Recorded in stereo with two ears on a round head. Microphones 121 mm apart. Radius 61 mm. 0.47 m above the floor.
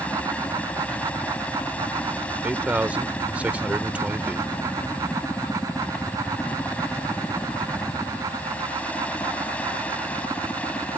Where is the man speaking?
10° right (ahead or behind).